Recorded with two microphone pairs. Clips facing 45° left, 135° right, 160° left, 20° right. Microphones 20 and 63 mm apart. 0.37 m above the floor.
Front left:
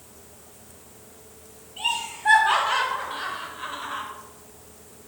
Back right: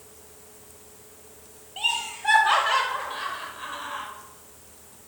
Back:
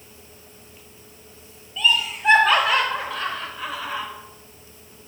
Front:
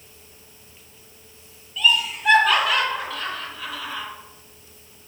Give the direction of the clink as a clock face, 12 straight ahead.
I don't hear a clink.